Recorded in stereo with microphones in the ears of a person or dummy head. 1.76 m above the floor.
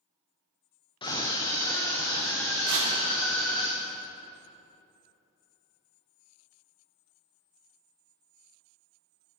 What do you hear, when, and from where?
1.0 s a scream: 20° left (ahead or behind), 0.7 m; by 3.7 s 10° left (ahead or behind), 2.5 m
2.7 s tearing paper: 65° right (ahead or behind), 4 m